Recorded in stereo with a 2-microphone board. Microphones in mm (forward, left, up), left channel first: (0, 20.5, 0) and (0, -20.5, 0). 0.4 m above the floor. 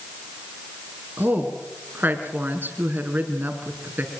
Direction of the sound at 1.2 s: 50° right (ahead or behind).